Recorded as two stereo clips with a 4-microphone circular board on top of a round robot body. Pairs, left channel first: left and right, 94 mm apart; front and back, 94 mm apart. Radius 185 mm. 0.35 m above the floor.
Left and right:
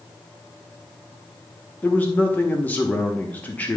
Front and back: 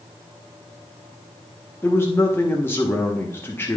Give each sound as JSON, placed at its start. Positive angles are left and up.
{"t": 1.8, "sound": "a man speaking", "azimuth_deg": 35, "distance_m": 1.3}